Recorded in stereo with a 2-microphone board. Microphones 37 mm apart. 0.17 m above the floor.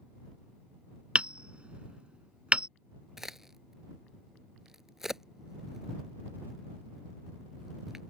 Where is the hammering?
30° right (ahead or behind).